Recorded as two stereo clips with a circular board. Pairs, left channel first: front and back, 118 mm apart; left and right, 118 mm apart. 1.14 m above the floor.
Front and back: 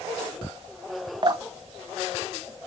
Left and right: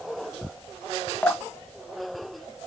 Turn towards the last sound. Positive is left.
turn(degrees=160)